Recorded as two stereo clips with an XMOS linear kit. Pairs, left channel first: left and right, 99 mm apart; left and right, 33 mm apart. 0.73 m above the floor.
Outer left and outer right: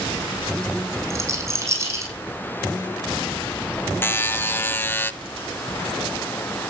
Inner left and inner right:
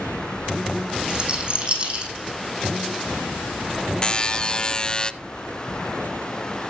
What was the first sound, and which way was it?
A rattle, 35° right (ahead or behind).